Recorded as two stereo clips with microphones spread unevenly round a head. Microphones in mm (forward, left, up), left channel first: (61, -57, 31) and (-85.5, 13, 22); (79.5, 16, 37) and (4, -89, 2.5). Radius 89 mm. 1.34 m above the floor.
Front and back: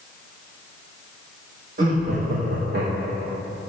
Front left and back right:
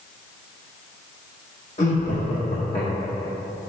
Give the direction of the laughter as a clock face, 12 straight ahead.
9 o'clock.